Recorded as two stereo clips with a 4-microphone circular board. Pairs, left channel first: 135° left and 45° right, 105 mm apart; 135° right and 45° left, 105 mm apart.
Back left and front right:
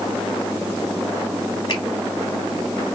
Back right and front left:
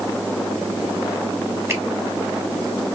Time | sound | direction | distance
1.7 | a finger snap | 105° left | 1.4 m